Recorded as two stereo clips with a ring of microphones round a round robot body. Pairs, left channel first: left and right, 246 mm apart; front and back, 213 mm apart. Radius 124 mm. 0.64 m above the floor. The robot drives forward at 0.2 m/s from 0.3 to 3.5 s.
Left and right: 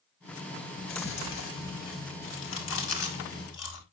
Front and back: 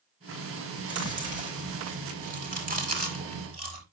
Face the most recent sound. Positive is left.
turn(degrees=135)